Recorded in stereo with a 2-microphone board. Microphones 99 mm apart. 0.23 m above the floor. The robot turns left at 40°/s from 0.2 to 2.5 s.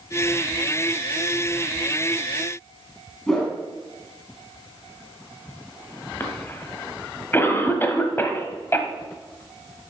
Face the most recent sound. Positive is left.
turn(degrees=25)  # may be behind; listen again after turning